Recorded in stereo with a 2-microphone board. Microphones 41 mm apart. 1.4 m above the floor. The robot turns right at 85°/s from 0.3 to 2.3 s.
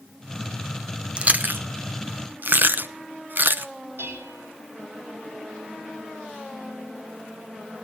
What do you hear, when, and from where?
1.2 s chewing: 30° right (ahead or behind), 0.9 m; by 3.7 s 55° right (ahead or behind), 0.9 m
4.0 s dishes clattering: 75° right (ahead or behind), 4.5 m